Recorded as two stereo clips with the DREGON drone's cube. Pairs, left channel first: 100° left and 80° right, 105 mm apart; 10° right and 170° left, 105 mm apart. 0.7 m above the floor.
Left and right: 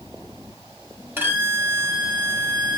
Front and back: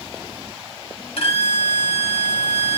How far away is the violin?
About 1.1 m.